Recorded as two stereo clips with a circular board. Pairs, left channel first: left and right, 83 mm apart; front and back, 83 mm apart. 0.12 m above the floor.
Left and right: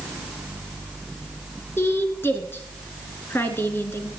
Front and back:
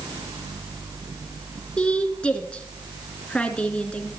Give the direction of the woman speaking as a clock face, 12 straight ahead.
10 o'clock.